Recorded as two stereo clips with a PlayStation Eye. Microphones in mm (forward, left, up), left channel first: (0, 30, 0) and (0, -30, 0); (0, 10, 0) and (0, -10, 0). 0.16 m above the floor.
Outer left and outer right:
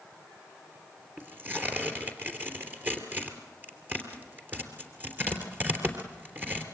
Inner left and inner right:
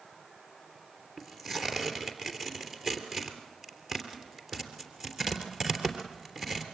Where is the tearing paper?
30° right (ahead or behind), 3 m.